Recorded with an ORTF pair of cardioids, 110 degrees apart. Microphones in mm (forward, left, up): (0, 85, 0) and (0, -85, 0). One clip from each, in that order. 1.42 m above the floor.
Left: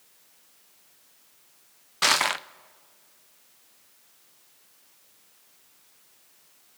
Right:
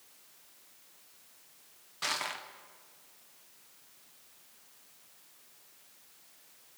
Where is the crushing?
55° left, 0.5 m.